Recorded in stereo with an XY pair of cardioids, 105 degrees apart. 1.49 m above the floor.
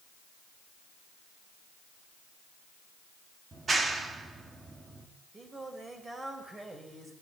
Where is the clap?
35° right, 3.5 m.